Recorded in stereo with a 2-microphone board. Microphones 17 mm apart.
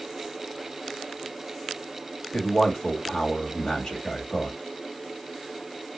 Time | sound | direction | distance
2.3 | a man speaking | 45° left (ahead or behind) | 1.7 m